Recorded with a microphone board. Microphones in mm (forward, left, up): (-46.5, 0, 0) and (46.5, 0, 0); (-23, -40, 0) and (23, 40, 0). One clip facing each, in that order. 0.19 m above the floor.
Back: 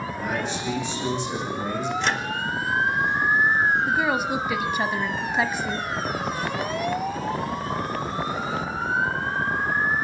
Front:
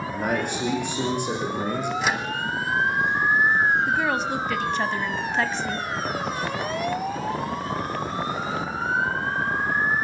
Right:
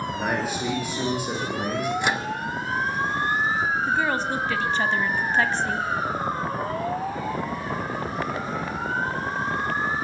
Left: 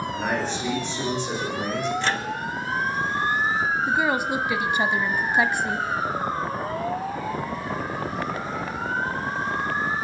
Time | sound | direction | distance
0.1 | a man speaking | 35° right | 9 m
2.0 | a microwave | 70° right | 1.1 m
3.9 | a woman speaking | 110° left | 1.0 m